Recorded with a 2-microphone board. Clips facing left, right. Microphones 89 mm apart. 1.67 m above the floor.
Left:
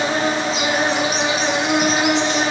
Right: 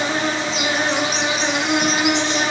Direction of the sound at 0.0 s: 5° left (ahead or behind).